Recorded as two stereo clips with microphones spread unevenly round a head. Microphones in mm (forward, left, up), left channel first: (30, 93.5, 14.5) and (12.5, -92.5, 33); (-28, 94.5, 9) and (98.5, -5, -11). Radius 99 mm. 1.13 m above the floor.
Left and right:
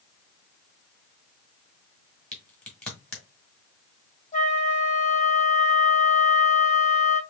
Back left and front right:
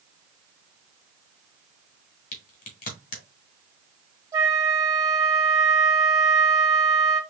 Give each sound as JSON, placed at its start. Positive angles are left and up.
{"t": 2.3, "sound": "a crack", "azimuth_deg": 175, "distance_m": 1.6}
{"t": 4.3, "sound": "a flute", "azimuth_deg": 30, "distance_m": 1.9}